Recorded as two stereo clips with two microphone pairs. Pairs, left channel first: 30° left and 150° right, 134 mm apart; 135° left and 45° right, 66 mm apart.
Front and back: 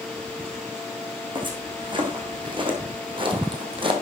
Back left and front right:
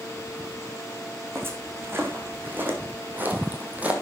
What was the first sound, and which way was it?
Footsteps, 100° right.